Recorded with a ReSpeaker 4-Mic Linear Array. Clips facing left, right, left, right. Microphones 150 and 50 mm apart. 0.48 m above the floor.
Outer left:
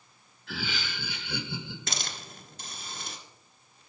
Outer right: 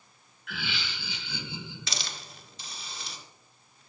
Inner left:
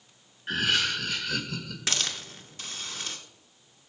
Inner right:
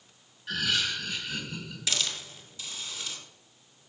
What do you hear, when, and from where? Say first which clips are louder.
0.5 s laughter: outer left 2 dB, inner left 3 dB; 30° left (ahead or behind), 1.1 m; by 1.8 s 65° left (ahead or behind), 2 m
1.9 s a hiss: outer left 2 dB, inner left 1 dB; 45° left (ahead or behind), 1.5 m